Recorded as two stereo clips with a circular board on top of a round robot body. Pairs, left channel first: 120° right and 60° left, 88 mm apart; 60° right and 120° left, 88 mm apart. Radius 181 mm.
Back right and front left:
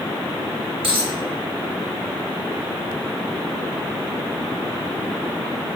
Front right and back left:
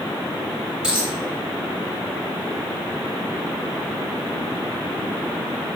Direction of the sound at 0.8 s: 40° left.